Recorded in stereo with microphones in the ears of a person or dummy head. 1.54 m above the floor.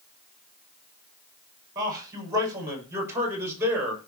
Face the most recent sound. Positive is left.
turn(degrees=-10)  # may be behind; listen again after turning